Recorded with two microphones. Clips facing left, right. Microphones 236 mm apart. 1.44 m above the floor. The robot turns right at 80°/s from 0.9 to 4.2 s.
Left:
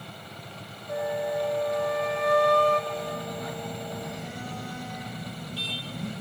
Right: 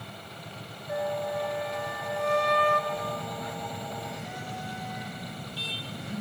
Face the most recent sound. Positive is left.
turn(degrees=65)